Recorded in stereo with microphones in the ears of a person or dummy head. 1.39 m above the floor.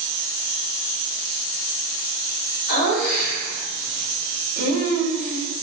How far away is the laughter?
About 3.5 m.